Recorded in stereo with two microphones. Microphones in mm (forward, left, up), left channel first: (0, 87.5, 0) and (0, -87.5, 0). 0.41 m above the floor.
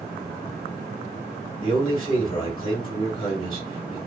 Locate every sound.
1.6 s a man speaking: 25° left (ahead or behind), 1.3 m